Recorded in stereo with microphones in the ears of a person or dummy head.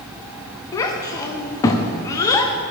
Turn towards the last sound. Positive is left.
turn(degrees=15)  # may be behind; listen again after turning